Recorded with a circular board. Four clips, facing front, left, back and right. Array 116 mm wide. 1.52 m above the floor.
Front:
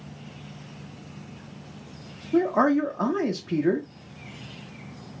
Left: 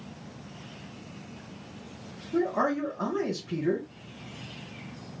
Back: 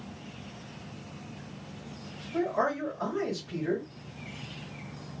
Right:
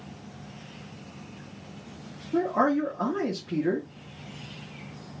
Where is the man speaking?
10° right, 0.9 m.